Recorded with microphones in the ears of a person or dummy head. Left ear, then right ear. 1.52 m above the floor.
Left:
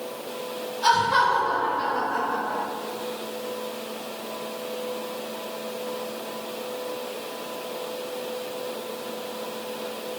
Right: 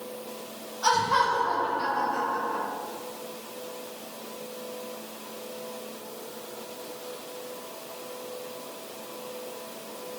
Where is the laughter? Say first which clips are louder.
Left 3 dB; 5° left (ahead or behind), 1.6 m.